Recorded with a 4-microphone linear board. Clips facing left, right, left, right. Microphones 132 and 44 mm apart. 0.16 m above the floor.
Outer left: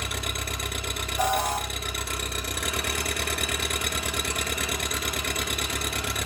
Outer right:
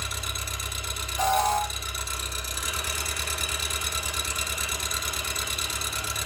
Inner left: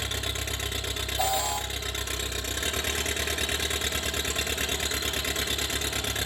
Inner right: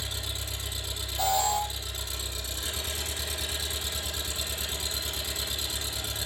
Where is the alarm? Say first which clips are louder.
Outer right 2 dB, inner right 2 dB; 10° left (ahead or behind), 4.5 m.